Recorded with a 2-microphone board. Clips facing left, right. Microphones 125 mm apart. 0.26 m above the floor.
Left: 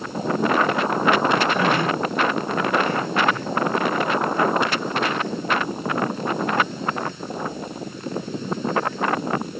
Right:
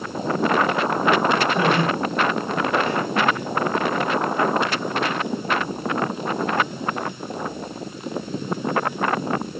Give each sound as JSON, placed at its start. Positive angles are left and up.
{"t": 1.5, "sound": "laughter", "side_deg": -35, "distance_m": 6.5}